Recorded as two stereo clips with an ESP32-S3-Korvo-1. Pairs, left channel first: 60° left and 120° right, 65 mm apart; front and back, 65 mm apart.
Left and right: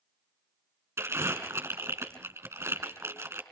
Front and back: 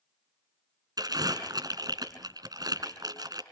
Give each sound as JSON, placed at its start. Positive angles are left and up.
{"t": 1.0, "sound": "crumpling", "azimuth_deg": -170, "distance_m": 3.5}